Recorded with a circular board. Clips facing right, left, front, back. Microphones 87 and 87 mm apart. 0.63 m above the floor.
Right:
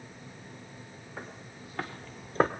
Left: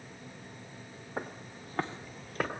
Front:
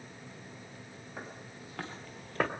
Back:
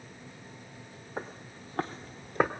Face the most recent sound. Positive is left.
turn(degrees=-100)